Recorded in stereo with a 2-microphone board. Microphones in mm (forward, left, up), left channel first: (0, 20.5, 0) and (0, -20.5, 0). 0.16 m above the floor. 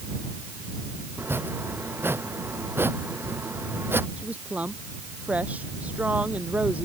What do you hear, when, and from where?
1.2 s chopping: 70° right (ahead or behind)
4.2 s a woman speaking: 40° right (ahead or behind)